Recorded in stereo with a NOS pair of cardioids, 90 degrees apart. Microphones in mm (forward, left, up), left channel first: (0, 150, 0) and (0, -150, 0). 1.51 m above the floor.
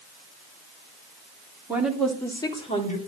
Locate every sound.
1.7 s a woman speaking: 5° right, 3 m; by 3.0 s 25° left, 3.5 m